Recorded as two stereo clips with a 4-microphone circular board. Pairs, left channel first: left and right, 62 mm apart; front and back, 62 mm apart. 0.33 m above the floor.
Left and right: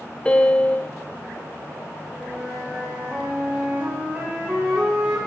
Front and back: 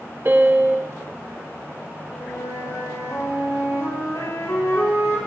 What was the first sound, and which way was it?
A piano, 150° left.